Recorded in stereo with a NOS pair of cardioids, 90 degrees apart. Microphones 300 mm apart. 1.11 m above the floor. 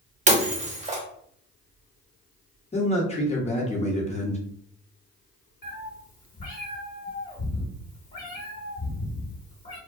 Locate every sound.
0.3 s breaking glass: 25° right, 1.1 m
2.7 s a man speaking: 25° left, 1.2 m
5.6 s a cat meowing: 30° left, 1.5 m